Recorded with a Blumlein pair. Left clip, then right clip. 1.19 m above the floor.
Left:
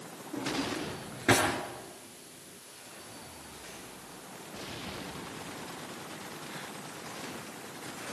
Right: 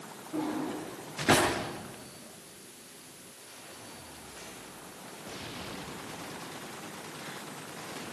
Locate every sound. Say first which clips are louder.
0.3 s a drawer: even; 5° left, 7 m